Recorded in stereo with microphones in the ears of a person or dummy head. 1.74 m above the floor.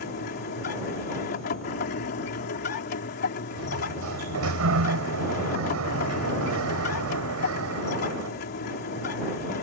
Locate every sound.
0.0 s a machine running: 50° left (ahead or behind)
3.6 s a sliding door: 85° right